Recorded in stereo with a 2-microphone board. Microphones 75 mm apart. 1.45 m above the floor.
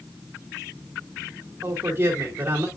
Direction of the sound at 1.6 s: 30° right (ahead or behind).